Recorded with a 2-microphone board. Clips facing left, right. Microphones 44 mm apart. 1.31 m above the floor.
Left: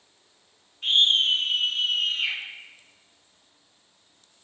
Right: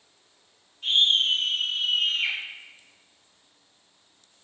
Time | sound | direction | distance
0.8 | a scream | 40° left (ahead or behind) | 1.0 m